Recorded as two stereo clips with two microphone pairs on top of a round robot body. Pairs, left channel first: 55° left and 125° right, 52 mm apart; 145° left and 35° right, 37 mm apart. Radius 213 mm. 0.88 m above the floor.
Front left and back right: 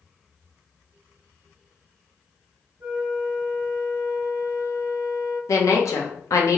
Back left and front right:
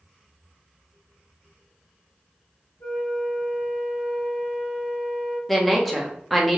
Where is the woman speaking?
50° left, 1.0 m.